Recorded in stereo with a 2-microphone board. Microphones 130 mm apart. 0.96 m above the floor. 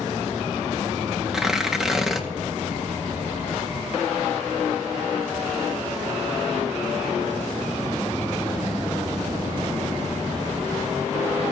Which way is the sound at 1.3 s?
5° right (ahead or behind).